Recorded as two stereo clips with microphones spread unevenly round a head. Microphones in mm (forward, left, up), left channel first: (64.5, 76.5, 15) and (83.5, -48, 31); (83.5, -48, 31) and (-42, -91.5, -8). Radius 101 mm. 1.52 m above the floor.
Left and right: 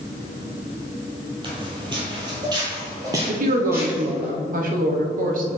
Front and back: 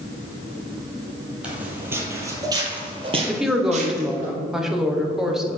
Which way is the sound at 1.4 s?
65° right.